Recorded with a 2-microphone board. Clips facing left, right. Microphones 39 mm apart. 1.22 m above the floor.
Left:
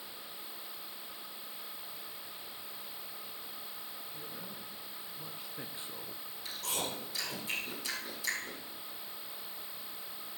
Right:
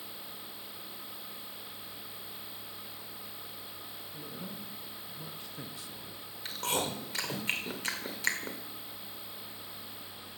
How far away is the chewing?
About 1.8 m.